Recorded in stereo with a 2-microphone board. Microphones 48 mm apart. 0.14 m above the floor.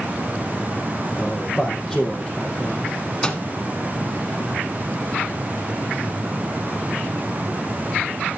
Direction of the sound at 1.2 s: 10° left (ahead or behind).